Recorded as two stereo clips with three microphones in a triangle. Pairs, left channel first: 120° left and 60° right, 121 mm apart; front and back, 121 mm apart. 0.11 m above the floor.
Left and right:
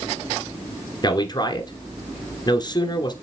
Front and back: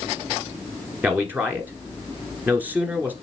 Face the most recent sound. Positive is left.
turn(degrees=115)